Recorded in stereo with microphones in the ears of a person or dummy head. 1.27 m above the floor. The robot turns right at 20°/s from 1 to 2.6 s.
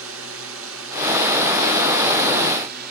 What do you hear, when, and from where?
0.0 s a drone: 85° right; by 2.9 s 55° right